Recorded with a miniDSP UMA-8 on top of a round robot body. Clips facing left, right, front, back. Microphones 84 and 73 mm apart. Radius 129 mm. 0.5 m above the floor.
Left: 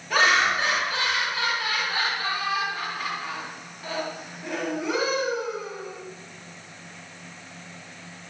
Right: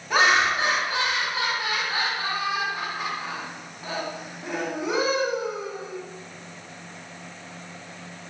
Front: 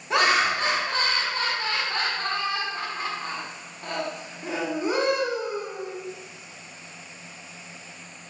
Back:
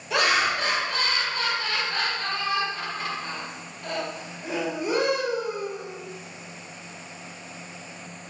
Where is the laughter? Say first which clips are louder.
Right 1 dB, front 1 dB; 30° right, 1.3 m.